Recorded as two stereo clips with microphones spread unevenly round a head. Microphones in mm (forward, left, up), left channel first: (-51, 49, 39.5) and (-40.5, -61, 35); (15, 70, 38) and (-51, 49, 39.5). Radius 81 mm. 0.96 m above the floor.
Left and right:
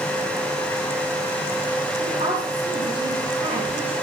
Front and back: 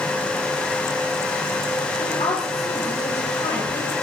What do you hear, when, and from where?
2.0 s a woman speaking: 25° right, 4.5 m